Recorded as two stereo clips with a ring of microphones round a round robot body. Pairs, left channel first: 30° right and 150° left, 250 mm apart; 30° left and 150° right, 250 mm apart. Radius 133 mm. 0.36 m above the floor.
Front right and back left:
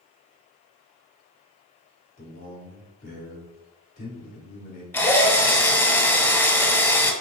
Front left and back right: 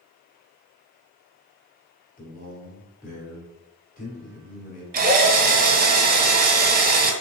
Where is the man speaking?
Straight ahead, 1.8 m.